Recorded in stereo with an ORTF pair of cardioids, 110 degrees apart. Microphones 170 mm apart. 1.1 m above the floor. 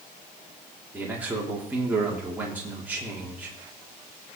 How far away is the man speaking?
About 3.5 m.